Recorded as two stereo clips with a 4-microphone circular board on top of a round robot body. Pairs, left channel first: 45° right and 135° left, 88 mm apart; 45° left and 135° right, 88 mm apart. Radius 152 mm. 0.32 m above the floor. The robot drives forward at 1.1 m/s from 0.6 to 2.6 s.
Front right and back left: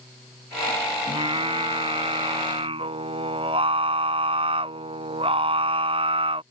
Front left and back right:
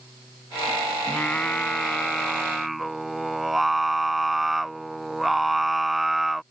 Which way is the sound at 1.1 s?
120° left.